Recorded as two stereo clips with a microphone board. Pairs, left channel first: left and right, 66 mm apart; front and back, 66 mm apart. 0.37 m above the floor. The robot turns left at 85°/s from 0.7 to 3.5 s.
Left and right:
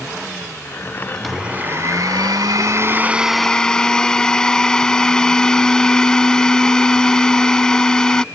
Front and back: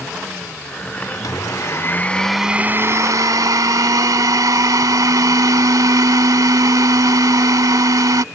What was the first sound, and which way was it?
A blender, 10° left.